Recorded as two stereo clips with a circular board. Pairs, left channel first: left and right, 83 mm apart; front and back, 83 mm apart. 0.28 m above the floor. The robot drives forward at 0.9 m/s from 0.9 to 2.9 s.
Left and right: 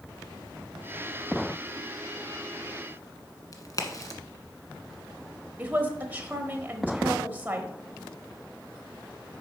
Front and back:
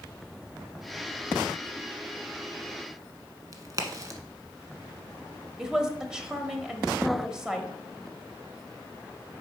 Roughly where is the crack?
Behind left.